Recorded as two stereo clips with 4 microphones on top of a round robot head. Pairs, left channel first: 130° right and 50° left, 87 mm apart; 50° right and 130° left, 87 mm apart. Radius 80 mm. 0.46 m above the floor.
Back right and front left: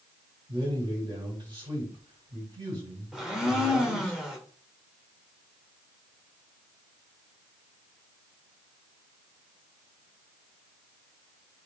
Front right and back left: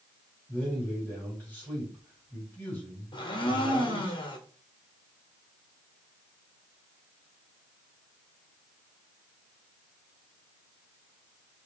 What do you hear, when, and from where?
0.5 s a man speaking: 20° left, 2.5 m
3.1 s a blender: 30° right, 1.1 m